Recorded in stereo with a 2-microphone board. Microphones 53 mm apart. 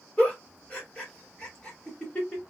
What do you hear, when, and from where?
0.2 s a giggle: 25° left (ahead or behind), 1.3 m